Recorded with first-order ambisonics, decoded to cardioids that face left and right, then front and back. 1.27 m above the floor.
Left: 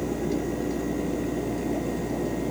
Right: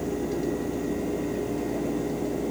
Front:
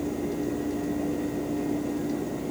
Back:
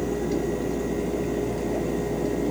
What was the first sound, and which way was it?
Only background noise.